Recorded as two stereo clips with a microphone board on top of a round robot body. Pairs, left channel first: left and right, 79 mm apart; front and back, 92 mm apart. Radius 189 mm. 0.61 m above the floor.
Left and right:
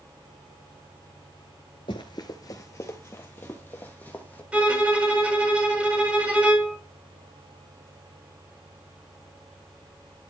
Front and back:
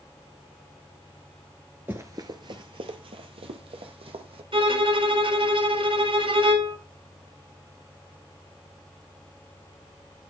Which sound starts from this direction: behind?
A violin, at 4.5 s.